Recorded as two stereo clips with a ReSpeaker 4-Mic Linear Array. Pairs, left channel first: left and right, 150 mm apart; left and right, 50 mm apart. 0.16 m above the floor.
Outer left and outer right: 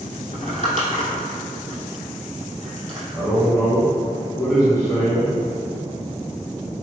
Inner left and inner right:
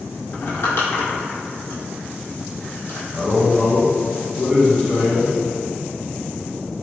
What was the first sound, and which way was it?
Crumpling, 60° left (ahead or behind).